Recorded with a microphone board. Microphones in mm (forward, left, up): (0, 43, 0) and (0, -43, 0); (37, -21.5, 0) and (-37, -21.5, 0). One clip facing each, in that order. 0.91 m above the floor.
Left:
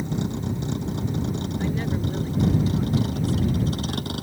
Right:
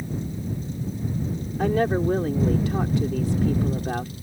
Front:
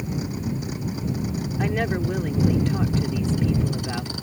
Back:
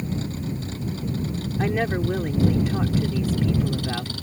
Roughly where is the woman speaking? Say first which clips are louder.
Right 9 dB, back 1 dB; right.